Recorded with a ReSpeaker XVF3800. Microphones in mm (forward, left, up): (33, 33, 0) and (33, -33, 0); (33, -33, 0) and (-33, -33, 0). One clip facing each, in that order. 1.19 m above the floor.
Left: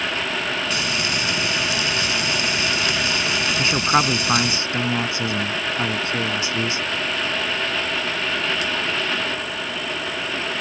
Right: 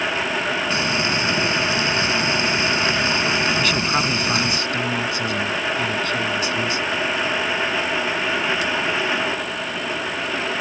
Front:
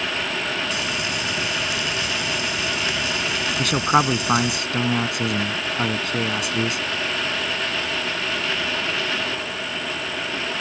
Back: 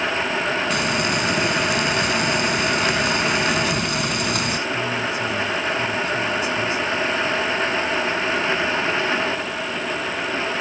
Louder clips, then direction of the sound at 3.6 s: Left 2 dB, front 4 dB; 25° left.